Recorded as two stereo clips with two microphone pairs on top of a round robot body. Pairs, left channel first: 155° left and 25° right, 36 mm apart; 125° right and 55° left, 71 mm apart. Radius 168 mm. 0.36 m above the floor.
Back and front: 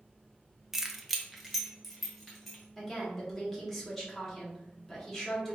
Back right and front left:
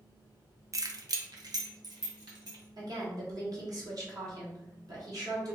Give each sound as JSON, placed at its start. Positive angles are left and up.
{"t": 0.7, "sound": "keys jangling", "azimuth_deg": 40, "distance_m": 0.6}
{"t": 2.8, "sound": "a woman speaking", "azimuth_deg": 70, "distance_m": 1.2}